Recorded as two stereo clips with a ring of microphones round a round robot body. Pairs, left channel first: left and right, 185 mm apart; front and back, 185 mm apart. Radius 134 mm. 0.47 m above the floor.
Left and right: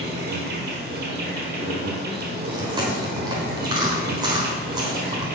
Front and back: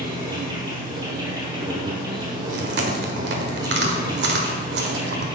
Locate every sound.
0.0 s an insect: 110° right, 1.7 m
2.5 s chewing: 160° right, 1.3 m